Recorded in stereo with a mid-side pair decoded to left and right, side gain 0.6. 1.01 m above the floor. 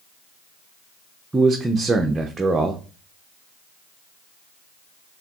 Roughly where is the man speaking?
Ahead.